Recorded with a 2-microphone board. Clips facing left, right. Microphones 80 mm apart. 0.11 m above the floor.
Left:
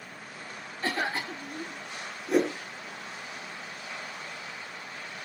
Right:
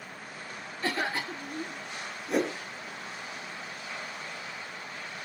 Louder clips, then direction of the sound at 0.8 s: Left 1 dB; 25° left (ahead or behind).